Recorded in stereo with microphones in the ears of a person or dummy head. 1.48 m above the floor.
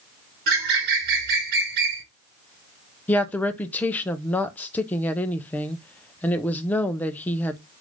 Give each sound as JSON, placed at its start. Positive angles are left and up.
{"t": 0.5, "sound": "a bird", "side_deg": -55, "distance_m": 1.1}
{"t": 3.1, "sound": "a woman speaking", "side_deg": 10, "distance_m": 0.6}